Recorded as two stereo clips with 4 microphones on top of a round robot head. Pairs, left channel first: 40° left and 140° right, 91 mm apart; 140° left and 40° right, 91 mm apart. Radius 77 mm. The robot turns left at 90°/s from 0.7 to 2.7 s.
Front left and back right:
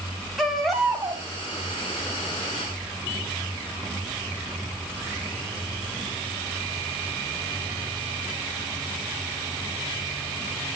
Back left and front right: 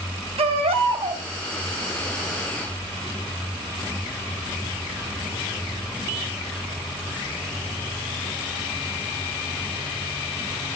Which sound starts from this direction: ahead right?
A baby crying, at 0.4 s.